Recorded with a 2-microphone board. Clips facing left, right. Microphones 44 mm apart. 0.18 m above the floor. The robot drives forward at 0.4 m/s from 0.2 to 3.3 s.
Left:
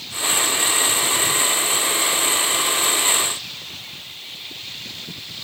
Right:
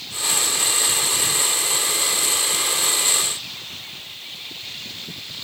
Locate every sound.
Only background noise.